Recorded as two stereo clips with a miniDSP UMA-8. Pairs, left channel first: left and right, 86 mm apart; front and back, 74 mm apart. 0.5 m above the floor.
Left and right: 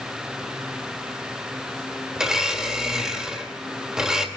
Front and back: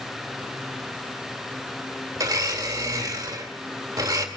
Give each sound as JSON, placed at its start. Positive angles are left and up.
{"t": 2.2, "sound": "a blender", "azimuth_deg": -170, "distance_m": 1.8}